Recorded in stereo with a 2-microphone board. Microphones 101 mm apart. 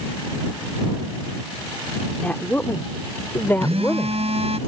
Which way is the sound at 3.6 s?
75° right (ahead or behind).